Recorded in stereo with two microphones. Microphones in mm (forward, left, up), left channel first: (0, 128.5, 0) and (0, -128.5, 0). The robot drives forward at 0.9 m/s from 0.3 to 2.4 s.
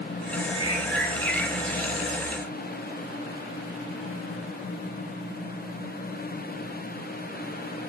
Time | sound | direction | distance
0.5 | a bird | 70° left (ahead or behind) | 1.1 m